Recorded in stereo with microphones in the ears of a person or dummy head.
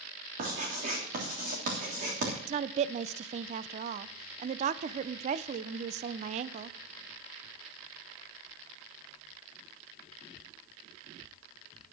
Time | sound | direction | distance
0.4 | writing | 40° right (ahead or behind) | 3 m
2.5 | a woman speaking | 50° right (ahead or behind) | 0.6 m